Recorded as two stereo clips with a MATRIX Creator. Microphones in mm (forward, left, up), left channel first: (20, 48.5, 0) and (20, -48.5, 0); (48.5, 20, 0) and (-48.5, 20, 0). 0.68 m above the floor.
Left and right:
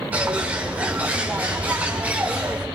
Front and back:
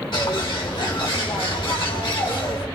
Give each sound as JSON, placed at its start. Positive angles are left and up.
{"t": 0.1, "sound": "a bird", "azimuth_deg": -20, "distance_m": 2.0}